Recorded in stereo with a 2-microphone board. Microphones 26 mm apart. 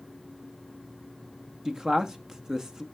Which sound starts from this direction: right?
A man speaking, at 1.6 s.